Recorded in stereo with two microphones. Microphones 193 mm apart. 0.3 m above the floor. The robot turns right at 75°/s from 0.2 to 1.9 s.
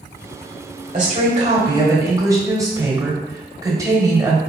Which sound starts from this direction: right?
A woman speaking, at 0.9 s.